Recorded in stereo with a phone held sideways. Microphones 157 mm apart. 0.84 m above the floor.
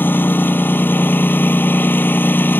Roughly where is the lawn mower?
Centre.